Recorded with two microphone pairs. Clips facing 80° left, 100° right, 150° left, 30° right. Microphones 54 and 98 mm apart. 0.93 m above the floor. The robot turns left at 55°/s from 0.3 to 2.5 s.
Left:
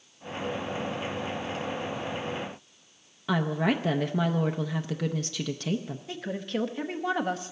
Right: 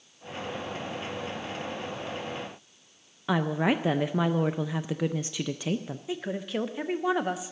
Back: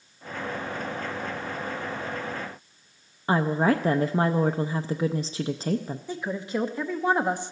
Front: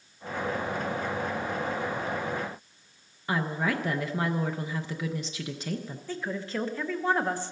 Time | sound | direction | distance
3.3 | a woman speaking | 170° right | 0.5 m
6.1 | a woman speaking | 165° right | 0.8 m